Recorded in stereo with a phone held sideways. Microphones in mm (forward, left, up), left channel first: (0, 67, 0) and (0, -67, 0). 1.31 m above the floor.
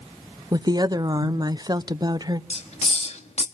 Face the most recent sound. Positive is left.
turn(degrees=50)  # may be behind; listen again after turning